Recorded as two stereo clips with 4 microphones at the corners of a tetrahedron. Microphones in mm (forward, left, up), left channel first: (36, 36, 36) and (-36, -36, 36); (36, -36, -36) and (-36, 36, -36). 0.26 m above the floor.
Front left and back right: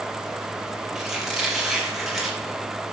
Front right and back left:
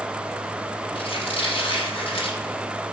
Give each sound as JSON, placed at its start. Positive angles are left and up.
{"t": 0.9, "sound": "a squeak", "azimuth_deg": -50, "distance_m": 5.0}